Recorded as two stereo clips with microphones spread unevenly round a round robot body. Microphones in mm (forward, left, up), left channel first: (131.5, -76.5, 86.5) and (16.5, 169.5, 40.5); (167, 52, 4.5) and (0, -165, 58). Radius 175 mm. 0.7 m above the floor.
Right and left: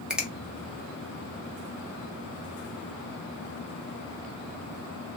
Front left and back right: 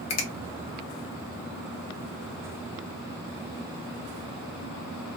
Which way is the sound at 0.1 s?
30° left.